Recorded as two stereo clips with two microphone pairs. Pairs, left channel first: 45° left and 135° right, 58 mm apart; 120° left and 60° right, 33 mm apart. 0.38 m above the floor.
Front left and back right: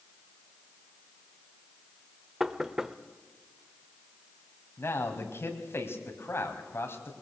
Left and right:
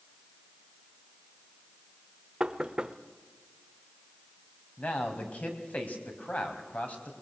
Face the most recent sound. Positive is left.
turn(degrees=85)